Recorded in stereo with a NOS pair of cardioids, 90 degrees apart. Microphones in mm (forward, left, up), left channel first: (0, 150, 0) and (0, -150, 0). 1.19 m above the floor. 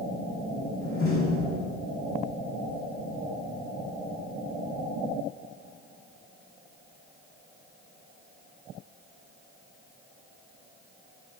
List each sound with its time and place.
0.8 s a door slam: 45° left, 5.5 m